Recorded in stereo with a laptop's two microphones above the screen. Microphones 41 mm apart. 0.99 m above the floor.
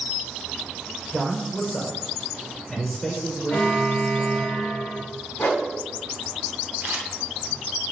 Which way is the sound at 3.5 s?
55° left (ahead or behind).